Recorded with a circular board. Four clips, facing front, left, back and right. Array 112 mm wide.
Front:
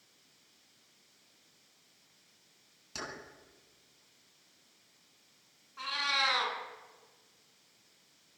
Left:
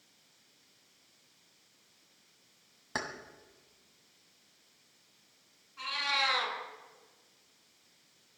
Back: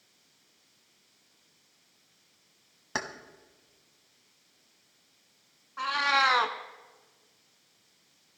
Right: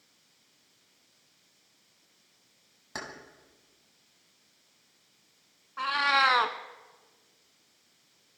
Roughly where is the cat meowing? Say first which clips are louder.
Right 9 dB, back 8 dB; behind right.